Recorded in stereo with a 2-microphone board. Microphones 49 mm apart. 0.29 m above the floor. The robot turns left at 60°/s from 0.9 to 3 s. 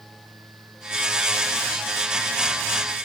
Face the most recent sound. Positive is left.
No sound to turn to.